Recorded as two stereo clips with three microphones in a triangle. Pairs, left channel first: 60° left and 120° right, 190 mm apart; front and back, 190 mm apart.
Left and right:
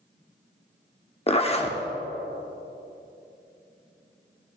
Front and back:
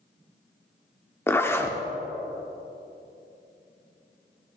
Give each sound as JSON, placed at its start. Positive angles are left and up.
{"t": 1.3, "sound": "a zipper", "azimuth_deg": 65, "distance_m": 0.9}